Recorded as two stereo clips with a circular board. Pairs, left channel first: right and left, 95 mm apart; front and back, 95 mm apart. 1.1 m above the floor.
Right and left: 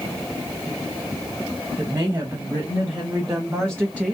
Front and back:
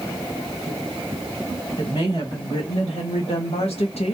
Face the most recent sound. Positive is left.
turn(degrees=5)